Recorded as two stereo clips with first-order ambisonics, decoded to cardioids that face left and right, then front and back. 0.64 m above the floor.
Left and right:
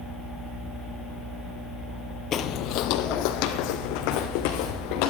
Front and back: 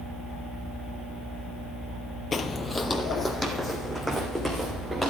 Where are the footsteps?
60° left, 0.7 m; by 5.1 s 95° left, 3 m.